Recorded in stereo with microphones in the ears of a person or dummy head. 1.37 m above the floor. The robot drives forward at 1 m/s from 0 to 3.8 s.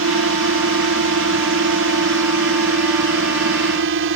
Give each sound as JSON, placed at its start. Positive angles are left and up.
{"t": 0.0, "sound": "a drone", "side_deg": -60}